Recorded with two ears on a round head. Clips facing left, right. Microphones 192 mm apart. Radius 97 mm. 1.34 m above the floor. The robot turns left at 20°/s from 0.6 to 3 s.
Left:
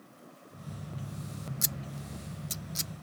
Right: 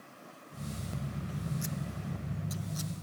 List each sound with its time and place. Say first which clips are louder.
1.6 s scissors: right 3 dB; 45° left (ahead or behind); by 2.9 s 25° left (ahead or behind)